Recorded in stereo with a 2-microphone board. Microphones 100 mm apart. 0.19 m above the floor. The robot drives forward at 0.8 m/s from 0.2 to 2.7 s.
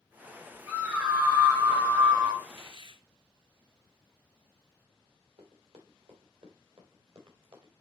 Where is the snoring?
I don't hear snoring.